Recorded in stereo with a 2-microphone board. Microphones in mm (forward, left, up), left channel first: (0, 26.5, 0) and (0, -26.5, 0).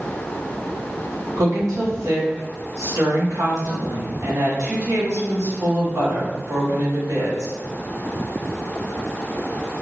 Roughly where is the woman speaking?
Right.